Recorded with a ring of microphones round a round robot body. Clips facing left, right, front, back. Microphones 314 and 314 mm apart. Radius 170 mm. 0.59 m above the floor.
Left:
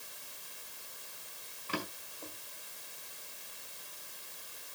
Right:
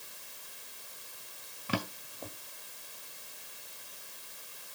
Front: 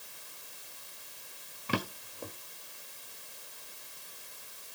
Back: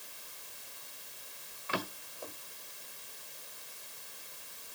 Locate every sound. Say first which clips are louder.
1.7 s a drawer: right 5 dB, front 5 dB; 55° right, 1.5 m